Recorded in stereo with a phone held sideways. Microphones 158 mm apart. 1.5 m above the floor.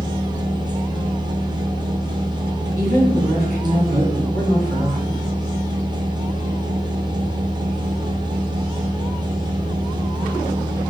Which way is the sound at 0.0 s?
25° right (ahead or behind).